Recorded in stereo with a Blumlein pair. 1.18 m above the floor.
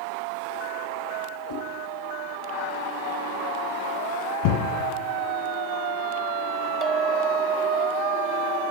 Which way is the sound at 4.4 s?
55° left.